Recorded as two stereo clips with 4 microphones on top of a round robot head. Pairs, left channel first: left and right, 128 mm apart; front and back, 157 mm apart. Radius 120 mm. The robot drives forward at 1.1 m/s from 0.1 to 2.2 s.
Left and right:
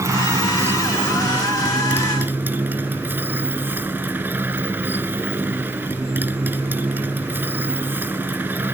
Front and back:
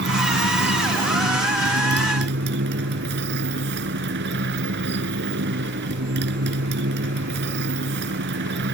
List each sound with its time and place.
0.0 s a motorcycle: 160° right; by 8.8 s 165° right